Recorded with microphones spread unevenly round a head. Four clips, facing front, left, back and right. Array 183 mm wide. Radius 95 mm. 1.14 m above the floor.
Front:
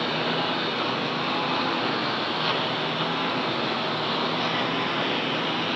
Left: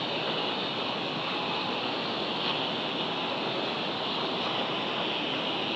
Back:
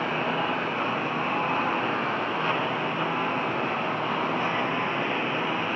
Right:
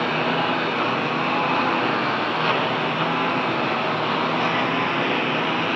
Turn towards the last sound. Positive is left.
turn(degrees=-80)